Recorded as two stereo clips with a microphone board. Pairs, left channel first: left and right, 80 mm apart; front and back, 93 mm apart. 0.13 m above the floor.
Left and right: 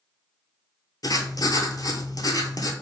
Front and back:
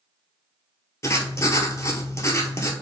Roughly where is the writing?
Ahead left.